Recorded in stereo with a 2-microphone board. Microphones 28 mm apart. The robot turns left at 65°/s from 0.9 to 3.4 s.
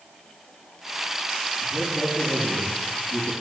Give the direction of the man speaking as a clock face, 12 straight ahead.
12 o'clock.